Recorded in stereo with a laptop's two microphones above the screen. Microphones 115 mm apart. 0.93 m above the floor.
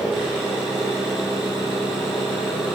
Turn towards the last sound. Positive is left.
turn(degrees=-15)  # may be behind; listen again after turning